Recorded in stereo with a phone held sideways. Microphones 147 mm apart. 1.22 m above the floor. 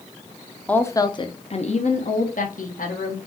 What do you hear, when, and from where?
0.7 s a woman speaking: 10° left (ahead or behind), 0.6 m; by 3.2 s 70° left (ahead or behind), 1.5 m